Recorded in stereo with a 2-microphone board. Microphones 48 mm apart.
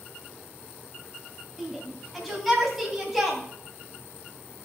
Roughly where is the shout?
Centre.